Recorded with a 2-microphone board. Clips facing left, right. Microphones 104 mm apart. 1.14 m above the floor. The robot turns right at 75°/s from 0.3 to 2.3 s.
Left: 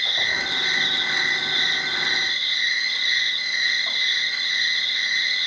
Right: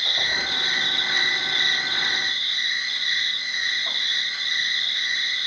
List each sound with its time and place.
0.0 s an insect: 80° right, 0.9 m; by 5.5 s 70° left, 0.9 m